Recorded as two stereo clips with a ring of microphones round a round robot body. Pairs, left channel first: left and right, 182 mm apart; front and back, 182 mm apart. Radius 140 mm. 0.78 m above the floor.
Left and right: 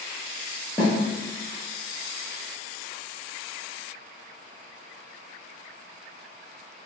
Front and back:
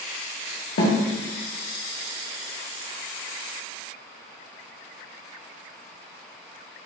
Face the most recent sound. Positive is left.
turn(degrees=5)